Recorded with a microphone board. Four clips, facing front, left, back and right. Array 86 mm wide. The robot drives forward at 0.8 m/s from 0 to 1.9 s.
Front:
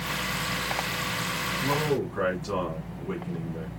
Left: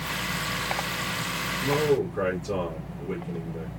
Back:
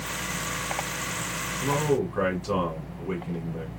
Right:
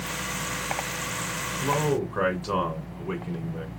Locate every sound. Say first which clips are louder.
1.6 s a man speaking: left 2 dB, back 3 dB; 100° right, 2 m; by 3.7 s 110° right, 2 m